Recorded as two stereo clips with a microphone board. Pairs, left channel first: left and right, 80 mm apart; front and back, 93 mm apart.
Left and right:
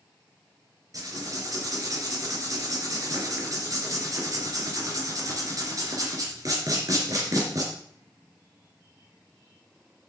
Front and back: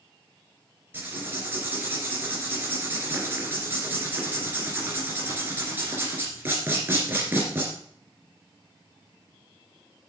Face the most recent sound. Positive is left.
turn(degrees=-120)